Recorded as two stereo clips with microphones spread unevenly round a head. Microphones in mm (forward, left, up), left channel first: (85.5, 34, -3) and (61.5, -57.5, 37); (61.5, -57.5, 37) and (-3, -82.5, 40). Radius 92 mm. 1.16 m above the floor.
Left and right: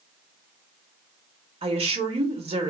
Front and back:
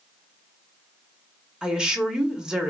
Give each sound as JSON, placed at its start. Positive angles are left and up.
{"t": 1.6, "sound": "a woman speaking", "azimuth_deg": -80, "distance_m": 1.0}